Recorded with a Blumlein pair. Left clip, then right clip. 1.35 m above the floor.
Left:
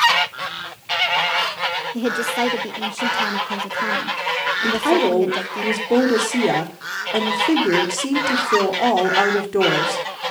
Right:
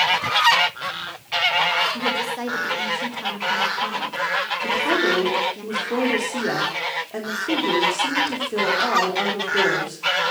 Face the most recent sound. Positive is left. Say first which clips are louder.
# left 2 dB
turn(degrees=20)